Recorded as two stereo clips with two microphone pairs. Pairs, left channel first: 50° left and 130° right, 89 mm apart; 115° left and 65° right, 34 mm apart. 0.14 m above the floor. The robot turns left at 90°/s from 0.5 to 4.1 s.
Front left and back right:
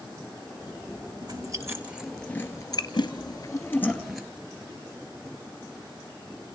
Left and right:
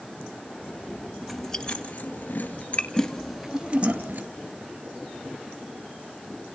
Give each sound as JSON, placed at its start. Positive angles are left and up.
{"t": 1.2, "sound": "chewing", "azimuth_deg": -140, "distance_m": 1.9}